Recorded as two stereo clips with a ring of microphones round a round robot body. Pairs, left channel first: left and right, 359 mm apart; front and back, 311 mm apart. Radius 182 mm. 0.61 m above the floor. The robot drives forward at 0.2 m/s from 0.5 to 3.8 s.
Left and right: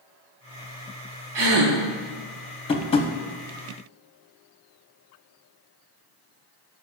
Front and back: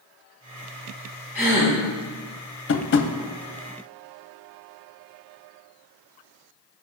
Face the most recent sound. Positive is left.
turn(degrees=40)